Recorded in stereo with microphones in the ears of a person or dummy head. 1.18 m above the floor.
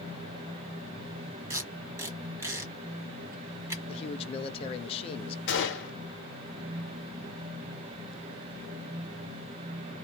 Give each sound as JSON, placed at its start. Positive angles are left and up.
{"t": 1.5, "sound": "tape being pulled", "side_deg": -15, "distance_m": 1.2}
{"t": 3.9, "sound": "a man speaking", "side_deg": 30, "distance_m": 0.7}
{"t": 5.5, "sound": "a gunshot", "side_deg": 60, "distance_m": 1.1}